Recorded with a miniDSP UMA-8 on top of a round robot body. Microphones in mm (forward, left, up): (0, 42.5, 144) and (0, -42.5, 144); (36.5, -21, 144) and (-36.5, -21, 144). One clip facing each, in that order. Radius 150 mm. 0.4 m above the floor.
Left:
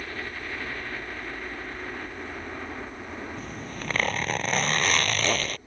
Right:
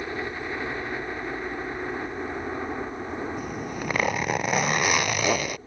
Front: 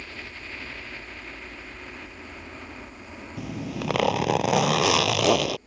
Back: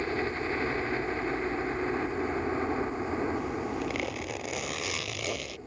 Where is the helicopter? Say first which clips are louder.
Right 5 dB, back 10 dB; 150° right.